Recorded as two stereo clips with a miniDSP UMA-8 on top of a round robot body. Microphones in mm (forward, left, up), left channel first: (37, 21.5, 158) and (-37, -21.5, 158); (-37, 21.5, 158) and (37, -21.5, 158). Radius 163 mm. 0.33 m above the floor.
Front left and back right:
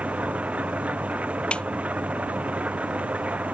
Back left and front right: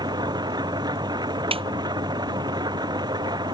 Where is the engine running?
75° right.